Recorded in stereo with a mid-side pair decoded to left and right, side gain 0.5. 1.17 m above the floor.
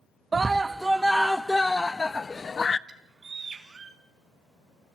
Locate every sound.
0.3 s a scream: 25° right, 0.9 m; by 2.8 s 35° left, 1.5 m
2.9 s a bird: 35° right, 4 m